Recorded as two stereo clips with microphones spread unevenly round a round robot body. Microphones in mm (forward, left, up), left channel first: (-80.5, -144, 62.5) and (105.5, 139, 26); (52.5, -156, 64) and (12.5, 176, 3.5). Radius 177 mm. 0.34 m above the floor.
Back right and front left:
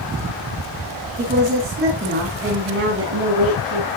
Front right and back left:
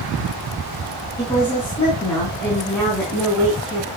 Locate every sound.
1.2 s a woman speaking: 10° right, 4.5 m; by 3.9 s 10° left, 4.5 m